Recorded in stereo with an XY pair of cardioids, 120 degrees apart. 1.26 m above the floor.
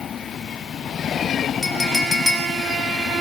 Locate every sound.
1.6 s a clink: 15° left, 4.5 m